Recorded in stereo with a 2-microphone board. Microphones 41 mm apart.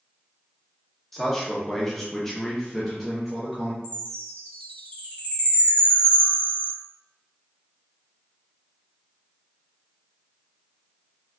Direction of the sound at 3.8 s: 30° left (ahead or behind).